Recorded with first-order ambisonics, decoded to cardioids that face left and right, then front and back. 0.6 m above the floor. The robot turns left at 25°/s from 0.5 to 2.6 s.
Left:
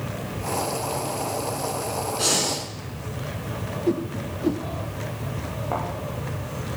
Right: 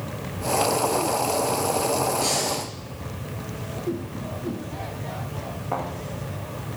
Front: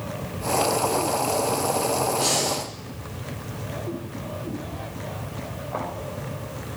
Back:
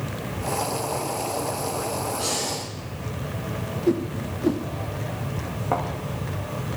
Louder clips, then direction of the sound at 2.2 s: Left 1 dB, front 3 dB; 80° left.